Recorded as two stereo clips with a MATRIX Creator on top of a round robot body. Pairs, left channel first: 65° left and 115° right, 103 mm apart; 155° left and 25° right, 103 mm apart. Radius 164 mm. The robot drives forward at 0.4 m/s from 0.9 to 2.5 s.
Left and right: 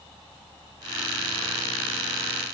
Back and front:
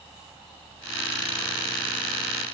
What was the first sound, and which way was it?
Only background noise.